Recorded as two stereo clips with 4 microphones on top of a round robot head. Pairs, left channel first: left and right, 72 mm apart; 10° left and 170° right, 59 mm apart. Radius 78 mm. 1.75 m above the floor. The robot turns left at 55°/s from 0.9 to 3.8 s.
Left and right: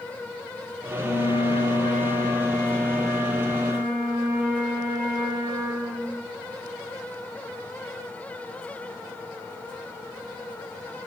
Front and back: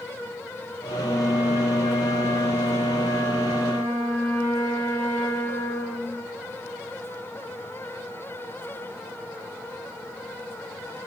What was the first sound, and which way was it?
A flute, 115° left.